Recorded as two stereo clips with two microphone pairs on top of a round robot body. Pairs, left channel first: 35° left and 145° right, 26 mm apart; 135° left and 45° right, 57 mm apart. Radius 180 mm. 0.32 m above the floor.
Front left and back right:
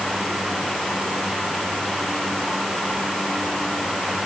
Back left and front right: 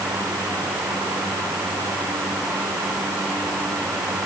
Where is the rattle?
I don't hear a rattle.